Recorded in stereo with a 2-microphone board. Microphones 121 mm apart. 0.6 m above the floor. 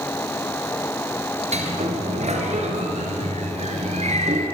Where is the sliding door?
70° right (ahead or behind), 3 m.